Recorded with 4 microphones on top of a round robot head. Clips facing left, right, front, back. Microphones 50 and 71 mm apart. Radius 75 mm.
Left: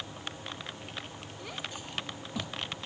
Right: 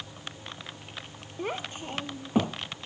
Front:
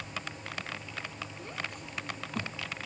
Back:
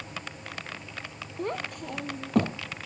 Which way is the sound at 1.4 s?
145° right.